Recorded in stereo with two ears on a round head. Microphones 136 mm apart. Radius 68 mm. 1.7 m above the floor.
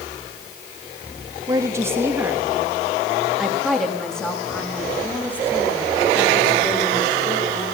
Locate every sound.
1.5 s a woman speaking: 20° right (ahead or behind), 3 m; by 7.7 s 20° left (ahead or behind), 6 m